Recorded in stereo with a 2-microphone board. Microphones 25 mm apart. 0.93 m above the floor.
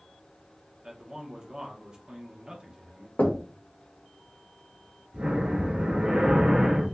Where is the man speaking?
35° right (ahead or behind), 1.0 m.